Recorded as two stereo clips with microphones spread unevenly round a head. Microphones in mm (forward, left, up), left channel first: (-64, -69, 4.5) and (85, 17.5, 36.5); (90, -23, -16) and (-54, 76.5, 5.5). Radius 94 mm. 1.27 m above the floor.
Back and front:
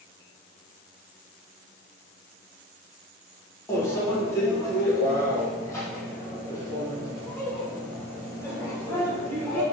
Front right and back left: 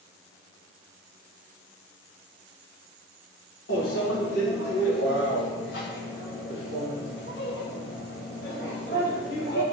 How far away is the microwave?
About 0.9 m.